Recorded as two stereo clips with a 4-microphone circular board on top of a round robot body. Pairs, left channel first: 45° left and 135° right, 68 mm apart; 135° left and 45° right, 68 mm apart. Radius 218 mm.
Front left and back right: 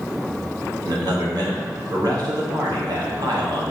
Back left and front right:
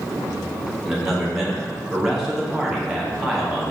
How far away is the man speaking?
About 1.4 m.